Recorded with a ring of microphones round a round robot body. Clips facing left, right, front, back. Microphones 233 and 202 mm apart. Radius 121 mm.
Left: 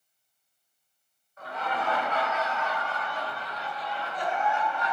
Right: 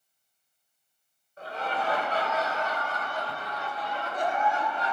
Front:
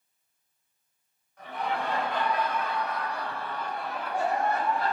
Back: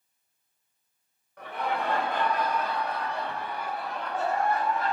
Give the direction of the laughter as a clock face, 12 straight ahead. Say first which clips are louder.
Right 1 dB, back 1 dB; 5 o'clock.